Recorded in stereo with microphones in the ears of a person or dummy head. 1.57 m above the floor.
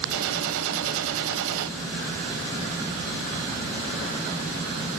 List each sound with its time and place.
0.1 s a gunshot: 75° right (ahead or behind), 1.2 m